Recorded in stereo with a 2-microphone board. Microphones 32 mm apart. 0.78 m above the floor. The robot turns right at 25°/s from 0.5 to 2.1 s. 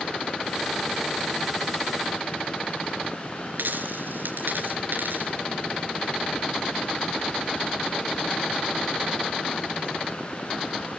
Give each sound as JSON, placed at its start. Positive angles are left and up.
{"t": 3.6, "sound": "a dropped coin", "side_deg": -85, "distance_m": 4.0}